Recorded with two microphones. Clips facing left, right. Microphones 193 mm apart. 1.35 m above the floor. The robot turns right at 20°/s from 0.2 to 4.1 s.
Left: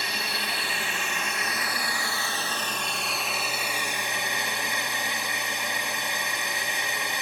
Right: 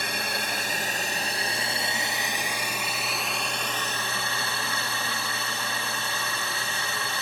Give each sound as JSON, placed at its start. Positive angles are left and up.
{"t": 0.0, "sound": "a drone", "azimuth_deg": -60}